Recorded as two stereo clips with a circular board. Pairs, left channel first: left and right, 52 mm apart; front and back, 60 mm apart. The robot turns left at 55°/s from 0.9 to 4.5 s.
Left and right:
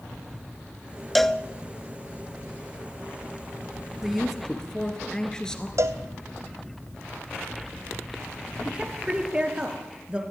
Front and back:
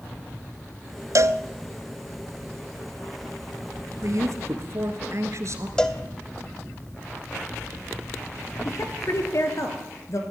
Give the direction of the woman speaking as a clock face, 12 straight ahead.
1 o'clock.